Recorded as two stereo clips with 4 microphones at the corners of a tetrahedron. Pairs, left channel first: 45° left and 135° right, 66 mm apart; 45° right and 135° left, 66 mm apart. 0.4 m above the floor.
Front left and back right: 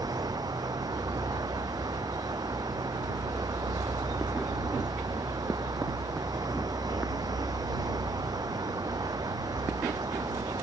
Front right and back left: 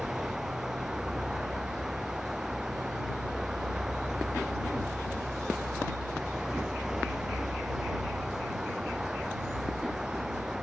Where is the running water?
140° right.